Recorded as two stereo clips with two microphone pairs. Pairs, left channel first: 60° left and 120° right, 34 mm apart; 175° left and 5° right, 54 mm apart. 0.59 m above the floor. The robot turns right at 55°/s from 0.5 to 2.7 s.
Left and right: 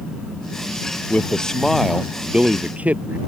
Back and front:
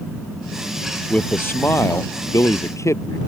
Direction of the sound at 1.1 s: 110° left.